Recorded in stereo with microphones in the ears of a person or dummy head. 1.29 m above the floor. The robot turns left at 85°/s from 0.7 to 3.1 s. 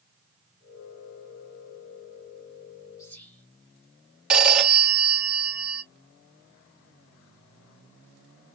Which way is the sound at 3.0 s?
25° left (ahead or behind).